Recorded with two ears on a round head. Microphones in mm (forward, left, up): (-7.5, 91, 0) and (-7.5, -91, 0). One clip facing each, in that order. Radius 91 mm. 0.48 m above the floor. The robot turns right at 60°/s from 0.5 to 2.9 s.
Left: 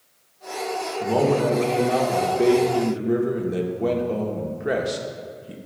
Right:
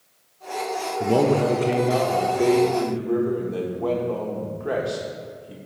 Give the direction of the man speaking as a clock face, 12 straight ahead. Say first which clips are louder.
Right 1 dB; 2 o'clock.